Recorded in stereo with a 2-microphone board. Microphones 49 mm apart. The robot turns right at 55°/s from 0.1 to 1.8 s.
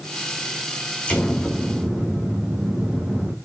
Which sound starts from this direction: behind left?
An explosion, at 1.1 s.